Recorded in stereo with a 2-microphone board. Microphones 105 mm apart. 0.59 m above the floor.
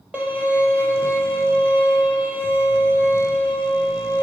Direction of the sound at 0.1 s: 15° right (ahead or behind).